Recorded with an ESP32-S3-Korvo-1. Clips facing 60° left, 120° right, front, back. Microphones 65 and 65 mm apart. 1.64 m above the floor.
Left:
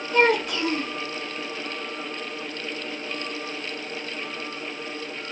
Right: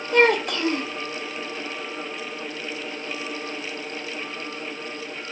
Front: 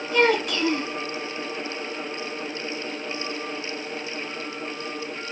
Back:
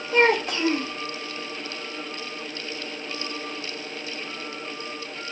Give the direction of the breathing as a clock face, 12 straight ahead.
I don't hear breathing.